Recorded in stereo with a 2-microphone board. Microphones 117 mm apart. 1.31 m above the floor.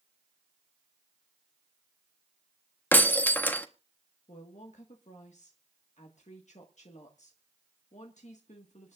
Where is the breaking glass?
15° left (ahead or behind), 1.0 m.